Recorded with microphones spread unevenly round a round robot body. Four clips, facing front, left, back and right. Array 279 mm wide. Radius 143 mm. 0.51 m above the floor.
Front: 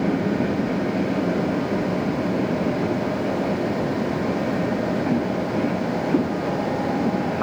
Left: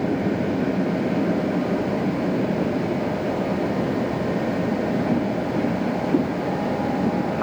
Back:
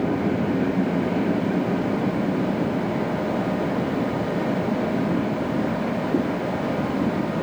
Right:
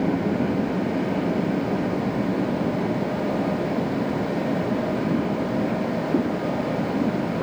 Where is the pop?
I don't hear a pop.